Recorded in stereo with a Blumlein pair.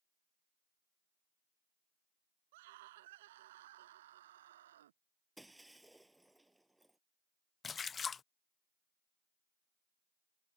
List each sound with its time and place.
2.5 s a scream: 50° right; by 5.0 s 60° right
5.4 s breaking glass: 5° right
7.6 s a splash: 20° left